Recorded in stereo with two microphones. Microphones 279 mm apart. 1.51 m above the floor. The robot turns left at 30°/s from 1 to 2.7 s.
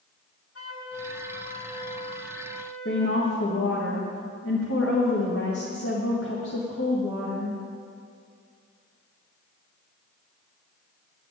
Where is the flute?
55° left, 1.5 m; by 3.3 s straight ahead, 1.5 m.